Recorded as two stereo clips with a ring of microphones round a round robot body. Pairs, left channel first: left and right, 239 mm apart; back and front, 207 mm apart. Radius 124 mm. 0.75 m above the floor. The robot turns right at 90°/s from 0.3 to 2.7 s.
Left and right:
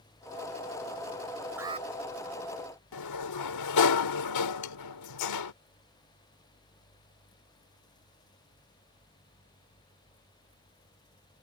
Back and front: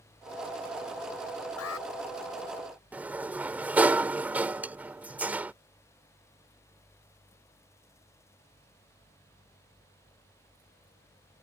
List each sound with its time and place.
1.6 s an alarm: 170° right; by 1.9 s 145° right
2.9 s a sliding door: 85° left
4.6 s sawing: 85° left